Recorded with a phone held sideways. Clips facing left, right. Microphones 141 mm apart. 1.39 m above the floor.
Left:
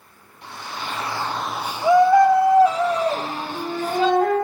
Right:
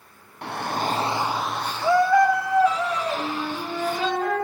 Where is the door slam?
No door slam in this recording.